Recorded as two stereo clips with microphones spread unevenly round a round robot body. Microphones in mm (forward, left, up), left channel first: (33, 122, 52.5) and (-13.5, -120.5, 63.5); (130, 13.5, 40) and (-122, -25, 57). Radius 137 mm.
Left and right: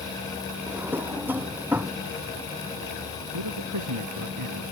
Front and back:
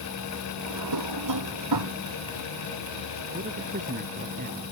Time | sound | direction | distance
0.7 | a drawer | 175° left | ?
3.3 | a man speaking | 110° right | ?